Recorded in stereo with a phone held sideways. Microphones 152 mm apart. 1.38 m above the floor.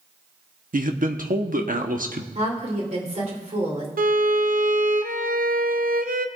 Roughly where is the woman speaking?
Right.